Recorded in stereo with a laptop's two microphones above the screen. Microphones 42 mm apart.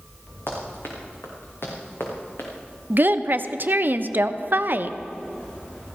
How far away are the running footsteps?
About 3.5 m.